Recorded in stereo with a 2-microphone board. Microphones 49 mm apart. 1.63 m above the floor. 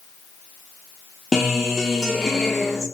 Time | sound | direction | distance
1.3 | a guitar | 5° right (ahead or behind) | 0.7 m